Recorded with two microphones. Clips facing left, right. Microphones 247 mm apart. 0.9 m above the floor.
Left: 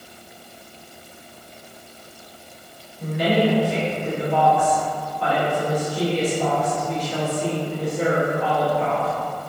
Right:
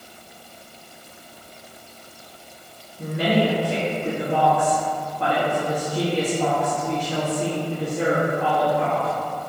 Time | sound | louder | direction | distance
3.0 | a woman speaking | left 1 dB | 60° right (ahead or behind) | 1.2 m